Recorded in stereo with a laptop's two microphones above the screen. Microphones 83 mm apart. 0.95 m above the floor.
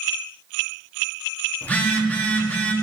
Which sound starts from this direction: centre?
A phone buzzing, at 1.6 s.